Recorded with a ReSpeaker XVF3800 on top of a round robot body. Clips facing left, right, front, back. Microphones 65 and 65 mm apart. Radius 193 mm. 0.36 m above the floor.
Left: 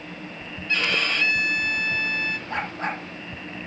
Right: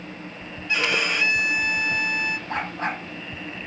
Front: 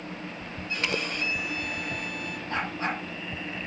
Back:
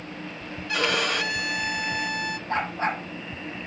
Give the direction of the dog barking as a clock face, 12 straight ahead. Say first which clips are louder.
Right 1 dB, back 3 dB; 4 o'clock.